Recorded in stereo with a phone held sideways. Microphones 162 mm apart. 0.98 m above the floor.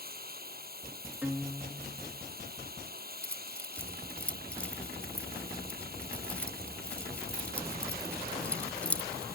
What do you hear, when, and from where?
0.0 s running water: 65° right (ahead or behind)
1.2 s a guitar: 10° right (ahead or behind)
3.2 s keys jangling: 10° left (ahead or behind)